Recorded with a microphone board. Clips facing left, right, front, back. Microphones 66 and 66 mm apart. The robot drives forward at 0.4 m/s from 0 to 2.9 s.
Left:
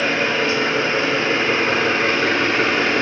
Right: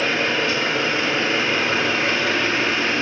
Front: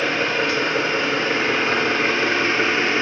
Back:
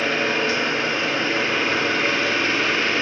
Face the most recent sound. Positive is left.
turn(degrees=60)